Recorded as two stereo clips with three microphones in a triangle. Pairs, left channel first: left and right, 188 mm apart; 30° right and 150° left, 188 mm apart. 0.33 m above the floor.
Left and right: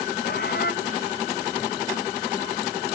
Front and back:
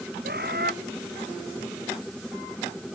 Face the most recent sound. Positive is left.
turn(degrees=120)